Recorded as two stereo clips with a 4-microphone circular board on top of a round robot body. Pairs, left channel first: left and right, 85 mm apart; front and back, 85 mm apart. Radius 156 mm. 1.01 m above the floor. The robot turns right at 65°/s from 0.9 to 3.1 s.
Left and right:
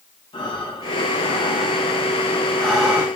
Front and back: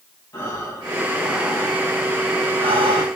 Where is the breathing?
60° left, 5 m; by 3.1 s 160° right, 5 m.